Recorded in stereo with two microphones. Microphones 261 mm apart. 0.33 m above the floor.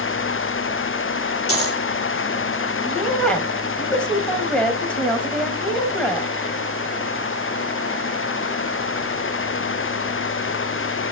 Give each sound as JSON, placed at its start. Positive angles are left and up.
{"t": 1.5, "sound": "a dropped coin", "side_deg": 65, "distance_m": 1.8}
{"t": 2.9, "sound": "a woman speaking", "side_deg": 5, "distance_m": 1.7}